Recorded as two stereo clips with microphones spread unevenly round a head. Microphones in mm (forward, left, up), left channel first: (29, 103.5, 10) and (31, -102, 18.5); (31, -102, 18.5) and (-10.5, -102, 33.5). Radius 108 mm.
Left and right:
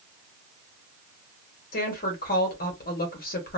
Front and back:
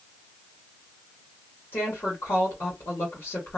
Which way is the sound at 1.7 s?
45° left.